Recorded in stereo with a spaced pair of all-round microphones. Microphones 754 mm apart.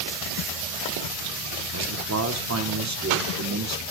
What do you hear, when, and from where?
1.7 s a man speaking: 25° right (ahead or behind), 0.8 m